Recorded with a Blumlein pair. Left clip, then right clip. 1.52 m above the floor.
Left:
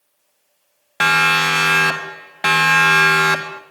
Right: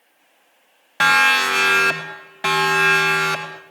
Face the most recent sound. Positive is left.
turn(degrees=25)